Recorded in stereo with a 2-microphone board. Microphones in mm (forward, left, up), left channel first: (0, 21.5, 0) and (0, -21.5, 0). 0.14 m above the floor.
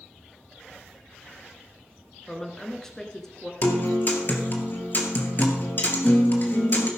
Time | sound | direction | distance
2.3 | a woman speaking | 10° left (ahead or behind) | 1.5 m
3.6 | a guitar | 45° left (ahead or behind) | 2 m